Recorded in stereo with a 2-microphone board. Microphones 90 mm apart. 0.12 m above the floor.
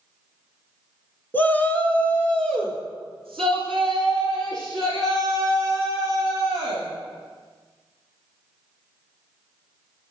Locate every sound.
1.3 s a shout: 20° left (ahead or behind), 1.2 m; by 6.8 s centre (ahead or behind), 7.5 m